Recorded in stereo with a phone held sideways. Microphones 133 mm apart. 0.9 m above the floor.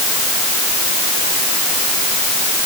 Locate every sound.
Only background noise.